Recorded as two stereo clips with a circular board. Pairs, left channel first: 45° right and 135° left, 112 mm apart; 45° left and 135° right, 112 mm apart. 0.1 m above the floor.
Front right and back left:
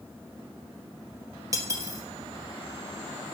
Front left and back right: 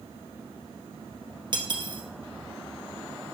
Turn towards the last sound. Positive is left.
turn(degrees=-170)